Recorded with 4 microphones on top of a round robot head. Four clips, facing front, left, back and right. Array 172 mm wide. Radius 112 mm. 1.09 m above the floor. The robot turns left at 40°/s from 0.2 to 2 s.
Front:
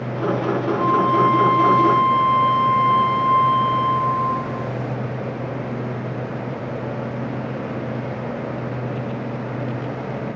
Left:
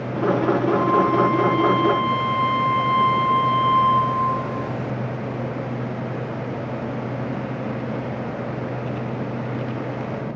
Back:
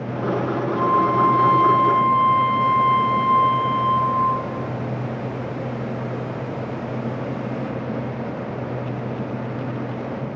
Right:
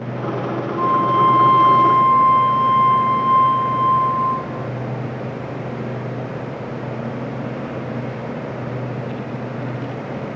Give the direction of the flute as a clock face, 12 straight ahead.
8 o'clock.